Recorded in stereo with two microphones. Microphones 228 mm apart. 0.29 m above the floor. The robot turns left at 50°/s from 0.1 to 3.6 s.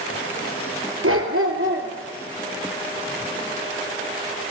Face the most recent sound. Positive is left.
turn(degrees=145)